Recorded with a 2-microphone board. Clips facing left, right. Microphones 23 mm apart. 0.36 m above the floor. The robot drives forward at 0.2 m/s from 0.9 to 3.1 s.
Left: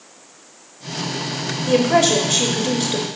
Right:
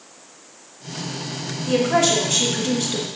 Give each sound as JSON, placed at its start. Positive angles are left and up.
{"t": 1.7, "sound": "a woman speaking", "side_deg": 35, "distance_m": 1.0}